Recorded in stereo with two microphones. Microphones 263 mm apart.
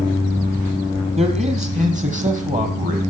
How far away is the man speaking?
About 4 m.